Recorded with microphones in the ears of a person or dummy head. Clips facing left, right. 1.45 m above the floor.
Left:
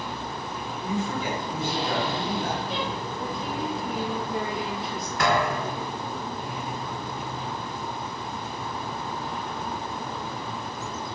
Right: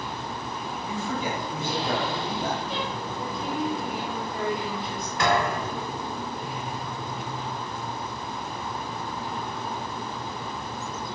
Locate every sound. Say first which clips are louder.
0.8 s a man speaking: left 2 dB; 75° right (ahead or behind), 1.3 m
3.2 s a woman speaking: right 3 dB; 5° left (ahead or behind), 0.7 m
5.2 s a thud: even; 20° right (ahead or behind), 1.6 m